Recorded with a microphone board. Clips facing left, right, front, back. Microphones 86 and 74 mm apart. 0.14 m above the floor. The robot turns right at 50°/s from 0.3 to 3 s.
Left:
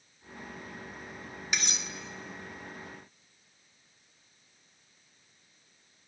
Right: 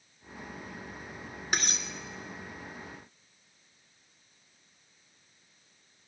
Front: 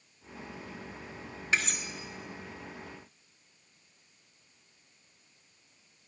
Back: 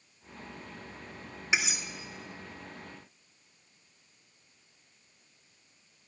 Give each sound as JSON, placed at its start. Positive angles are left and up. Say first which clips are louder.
{"t": 1.5, "sound": "cutlery clinking", "louder": "right 3 dB, even", "azimuth_deg": -105, "distance_m": 1.1}